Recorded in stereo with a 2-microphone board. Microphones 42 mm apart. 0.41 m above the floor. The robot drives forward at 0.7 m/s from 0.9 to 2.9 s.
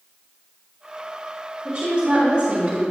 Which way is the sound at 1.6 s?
20° right (ahead or behind).